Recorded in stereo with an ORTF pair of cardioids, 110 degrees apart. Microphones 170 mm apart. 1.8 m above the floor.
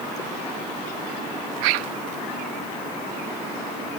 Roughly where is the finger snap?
No finger snap in this recording.